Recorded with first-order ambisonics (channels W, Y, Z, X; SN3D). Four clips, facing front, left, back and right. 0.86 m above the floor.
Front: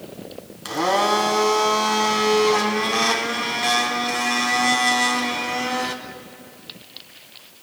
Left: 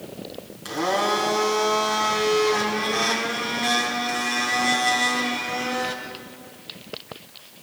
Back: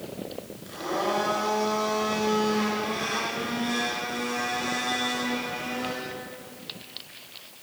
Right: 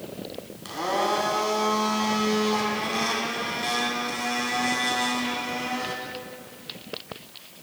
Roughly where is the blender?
Ahead.